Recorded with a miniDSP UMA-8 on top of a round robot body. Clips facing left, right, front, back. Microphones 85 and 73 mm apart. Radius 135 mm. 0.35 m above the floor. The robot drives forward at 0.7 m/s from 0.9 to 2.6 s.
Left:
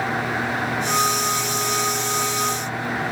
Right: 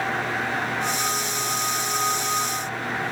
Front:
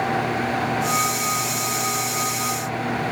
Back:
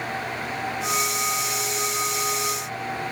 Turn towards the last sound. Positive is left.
No sound to turn to.